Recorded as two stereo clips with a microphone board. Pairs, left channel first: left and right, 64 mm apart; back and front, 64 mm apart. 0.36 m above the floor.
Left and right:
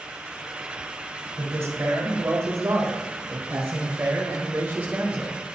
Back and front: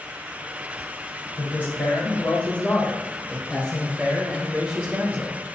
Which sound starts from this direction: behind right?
A man speaking, at 1.4 s.